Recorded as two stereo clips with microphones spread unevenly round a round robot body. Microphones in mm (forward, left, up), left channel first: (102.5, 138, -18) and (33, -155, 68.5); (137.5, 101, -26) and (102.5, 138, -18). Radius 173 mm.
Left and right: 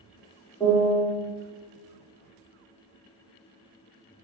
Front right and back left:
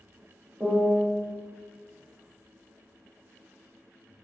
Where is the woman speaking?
No woman speaking in this recording.